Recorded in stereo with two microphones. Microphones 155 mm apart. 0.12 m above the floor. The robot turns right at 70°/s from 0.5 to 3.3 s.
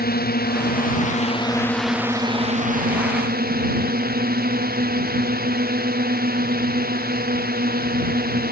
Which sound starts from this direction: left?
A drone, at 0.0 s.